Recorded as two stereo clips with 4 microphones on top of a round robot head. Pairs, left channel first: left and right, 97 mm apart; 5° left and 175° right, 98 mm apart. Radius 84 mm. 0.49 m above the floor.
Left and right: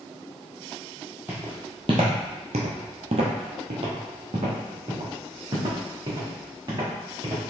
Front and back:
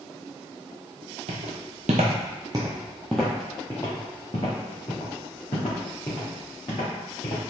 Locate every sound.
1.3 s footsteps: 170° right, 0.9 m; by 7.4 s 40° right, 3 m